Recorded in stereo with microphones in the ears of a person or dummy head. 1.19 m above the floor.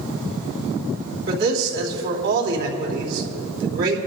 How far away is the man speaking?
About 3 m.